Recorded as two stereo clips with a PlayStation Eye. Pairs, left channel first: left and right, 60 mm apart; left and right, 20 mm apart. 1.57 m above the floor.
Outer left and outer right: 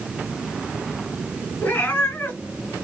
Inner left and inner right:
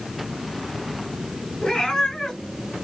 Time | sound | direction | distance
1.6 | a cat meowing | 30° left (ahead or behind) | 1.7 m